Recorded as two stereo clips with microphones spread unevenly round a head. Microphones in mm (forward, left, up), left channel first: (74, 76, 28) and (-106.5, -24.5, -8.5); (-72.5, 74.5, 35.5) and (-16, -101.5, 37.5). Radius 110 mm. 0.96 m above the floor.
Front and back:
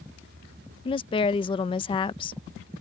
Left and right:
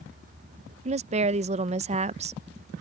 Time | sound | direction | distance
0.8 | a woman speaking | 40° right | ?